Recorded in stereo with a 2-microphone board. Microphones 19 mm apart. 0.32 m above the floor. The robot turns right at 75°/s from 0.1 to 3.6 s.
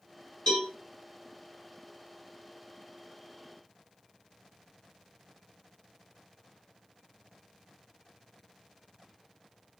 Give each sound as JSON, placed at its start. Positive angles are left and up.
{"t": 0.5, "sound": "a cowbell", "side_deg": 40, "distance_m": 1.4}